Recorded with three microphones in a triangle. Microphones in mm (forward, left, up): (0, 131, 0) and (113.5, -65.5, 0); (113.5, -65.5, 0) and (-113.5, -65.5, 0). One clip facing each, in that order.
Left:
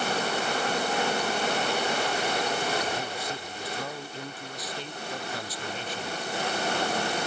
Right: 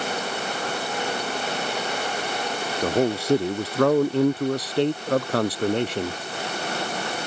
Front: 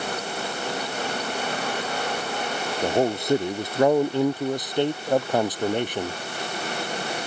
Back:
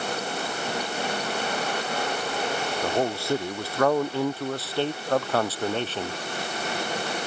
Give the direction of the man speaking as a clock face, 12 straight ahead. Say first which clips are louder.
Right 12 dB, front 5 dB; 2 o'clock.